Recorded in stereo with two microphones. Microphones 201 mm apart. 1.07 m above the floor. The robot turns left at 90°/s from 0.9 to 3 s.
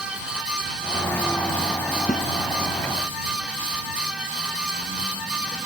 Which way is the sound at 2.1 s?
35° left (ahead or behind).